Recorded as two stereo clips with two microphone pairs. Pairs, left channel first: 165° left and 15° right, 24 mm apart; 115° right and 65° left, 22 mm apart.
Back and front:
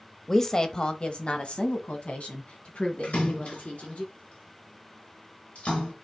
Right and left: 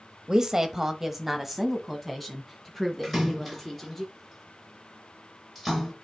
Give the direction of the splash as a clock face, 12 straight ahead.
7 o'clock.